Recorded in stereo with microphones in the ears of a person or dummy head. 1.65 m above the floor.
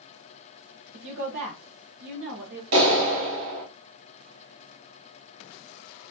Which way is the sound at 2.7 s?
85° right.